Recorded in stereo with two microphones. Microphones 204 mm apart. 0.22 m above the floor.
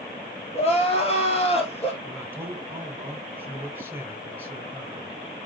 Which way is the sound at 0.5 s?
30° left (ahead or behind).